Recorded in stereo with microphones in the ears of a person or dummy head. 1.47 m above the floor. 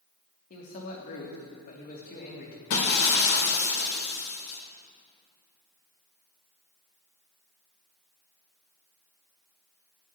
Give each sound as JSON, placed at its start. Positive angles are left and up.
{"t": 0.5, "sound": "a man speaking", "side_deg": 50, "distance_m": 2.5}
{"t": 2.7, "sound": "breaking glass", "side_deg": 70, "distance_m": 2.5}